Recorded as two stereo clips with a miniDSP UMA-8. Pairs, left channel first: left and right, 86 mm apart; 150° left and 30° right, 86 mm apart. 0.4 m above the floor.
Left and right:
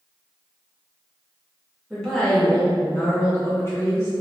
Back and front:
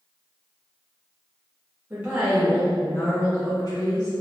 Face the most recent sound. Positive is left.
turn(degrees=145)